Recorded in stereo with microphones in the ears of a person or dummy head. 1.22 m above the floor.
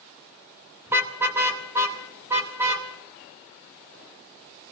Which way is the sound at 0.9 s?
5° right (ahead or behind).